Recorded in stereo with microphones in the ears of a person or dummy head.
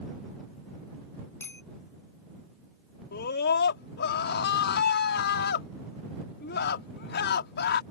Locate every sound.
1.4 s a bicycle bell: 15° left (ahead or behind)
3.1 s a scream: 60° left (ahead or behind)